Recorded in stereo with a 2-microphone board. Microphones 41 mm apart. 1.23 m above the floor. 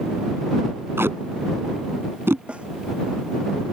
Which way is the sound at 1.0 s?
85° right.